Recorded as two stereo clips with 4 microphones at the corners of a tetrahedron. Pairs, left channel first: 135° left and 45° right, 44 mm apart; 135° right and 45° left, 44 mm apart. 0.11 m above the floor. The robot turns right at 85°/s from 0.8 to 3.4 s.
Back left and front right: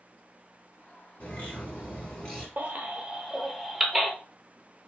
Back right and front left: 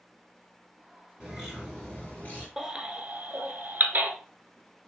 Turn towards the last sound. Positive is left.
turn(degrees=30)